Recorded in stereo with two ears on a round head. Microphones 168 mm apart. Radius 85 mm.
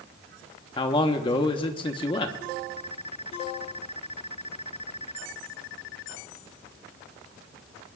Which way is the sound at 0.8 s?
25° left (ahead or behind).